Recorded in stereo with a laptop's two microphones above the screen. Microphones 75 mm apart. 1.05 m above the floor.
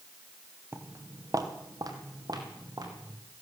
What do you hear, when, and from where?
0.7 s footsteps: 35° right (ahead or behind), 1.2 m; by 3.1 s 65° right (ahead or behind), 3 m